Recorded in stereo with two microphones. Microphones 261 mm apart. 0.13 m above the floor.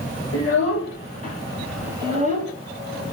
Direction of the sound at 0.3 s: 60° left (ahead or behind).